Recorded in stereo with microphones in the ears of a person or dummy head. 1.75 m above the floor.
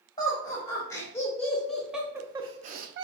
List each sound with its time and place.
0.2 s laughter: 20° left (ahead or behind), 1.7 m; by 3.0 s 70° right (ahead or behind), 0.5 m